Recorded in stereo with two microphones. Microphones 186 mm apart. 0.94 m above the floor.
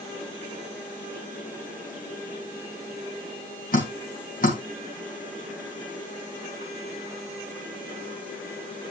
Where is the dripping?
50° left (ahead or behind), 3 m.